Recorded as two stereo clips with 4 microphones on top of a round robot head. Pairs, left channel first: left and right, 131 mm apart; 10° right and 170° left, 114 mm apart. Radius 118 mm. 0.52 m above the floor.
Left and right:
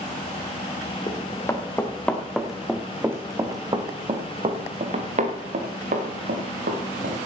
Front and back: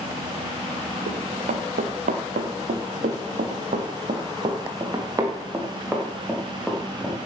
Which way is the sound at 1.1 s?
155° left.